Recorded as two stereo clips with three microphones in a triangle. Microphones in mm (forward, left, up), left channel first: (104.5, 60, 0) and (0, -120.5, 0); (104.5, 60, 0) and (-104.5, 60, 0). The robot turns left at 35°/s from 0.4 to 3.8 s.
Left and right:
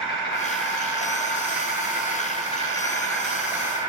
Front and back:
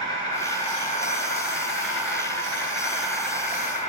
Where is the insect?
70° left, 1.2 m; by 3.9 s 50° right, 1.2 m.